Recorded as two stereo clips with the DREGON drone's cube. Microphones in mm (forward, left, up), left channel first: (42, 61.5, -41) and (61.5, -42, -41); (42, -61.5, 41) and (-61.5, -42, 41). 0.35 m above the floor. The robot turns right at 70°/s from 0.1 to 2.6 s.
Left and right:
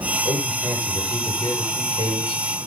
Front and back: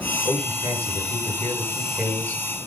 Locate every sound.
0.2 s a man speaking: 35° right, 8 m; by 2.4 s 115° left, 8 m